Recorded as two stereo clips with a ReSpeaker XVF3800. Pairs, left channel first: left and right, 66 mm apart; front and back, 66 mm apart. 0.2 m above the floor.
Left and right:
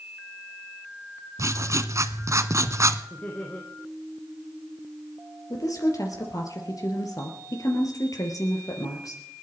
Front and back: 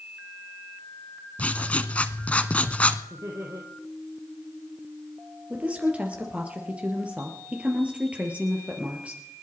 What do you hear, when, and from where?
1.4 s writing: 65° right, 0.9 m
3.1 s laughter: 150° left, 2.5 m
5.5 s a woman speaking: 110° left, 3.5 m